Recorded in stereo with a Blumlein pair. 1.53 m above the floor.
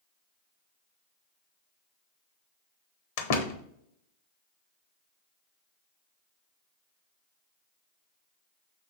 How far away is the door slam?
About 1.1 m.